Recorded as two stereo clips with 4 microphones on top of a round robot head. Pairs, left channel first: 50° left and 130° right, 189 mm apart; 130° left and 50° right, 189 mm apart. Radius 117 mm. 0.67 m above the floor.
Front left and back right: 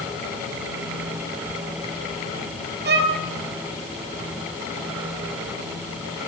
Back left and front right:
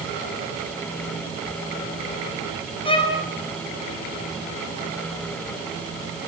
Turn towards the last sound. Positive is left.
turn(degrees=-165)